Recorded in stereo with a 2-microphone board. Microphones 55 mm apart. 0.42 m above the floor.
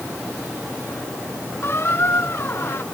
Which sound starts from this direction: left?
A squeak, at 1.6 s.